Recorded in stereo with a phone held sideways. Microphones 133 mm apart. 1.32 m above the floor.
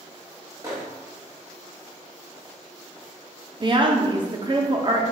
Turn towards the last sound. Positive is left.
turn(degrees=-35)  # may be behind; listen again after turning